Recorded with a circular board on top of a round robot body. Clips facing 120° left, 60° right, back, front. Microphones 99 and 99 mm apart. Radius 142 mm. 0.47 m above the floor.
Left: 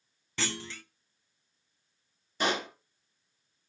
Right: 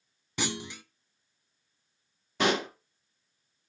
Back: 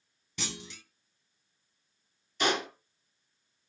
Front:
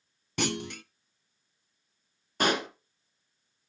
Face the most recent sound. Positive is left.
turn(degrees=-45)